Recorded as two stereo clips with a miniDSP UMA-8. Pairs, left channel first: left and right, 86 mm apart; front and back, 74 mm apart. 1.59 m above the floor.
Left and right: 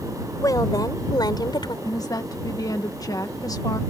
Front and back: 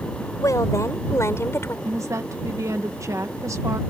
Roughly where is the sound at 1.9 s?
Behind left.